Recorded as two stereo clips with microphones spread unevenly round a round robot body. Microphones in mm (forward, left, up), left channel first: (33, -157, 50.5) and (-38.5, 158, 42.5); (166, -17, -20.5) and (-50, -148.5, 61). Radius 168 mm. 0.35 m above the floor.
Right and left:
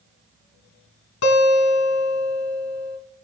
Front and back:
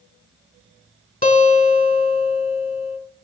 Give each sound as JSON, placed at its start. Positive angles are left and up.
{"t": 1.2, "sound": "a guitar", "azimuth_deg": -35, "distance_m": 3.0}